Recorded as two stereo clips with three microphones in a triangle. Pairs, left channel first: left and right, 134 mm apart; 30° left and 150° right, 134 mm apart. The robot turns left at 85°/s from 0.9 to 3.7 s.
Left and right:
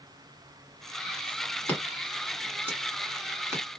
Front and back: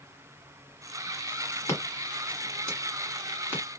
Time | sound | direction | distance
1.7 | scissors | 40° left | 1.6 m